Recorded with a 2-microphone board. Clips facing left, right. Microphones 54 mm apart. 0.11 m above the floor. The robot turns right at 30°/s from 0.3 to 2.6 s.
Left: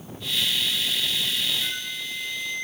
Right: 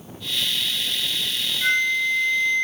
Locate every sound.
1.6 s a flute: 60° right (ahead or behind), 1.1 m; by 2.6 s 40° right (ahead or behind), 1.1 m